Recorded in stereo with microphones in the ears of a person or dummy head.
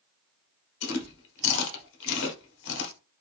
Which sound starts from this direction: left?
Chewing, at 0.8 s.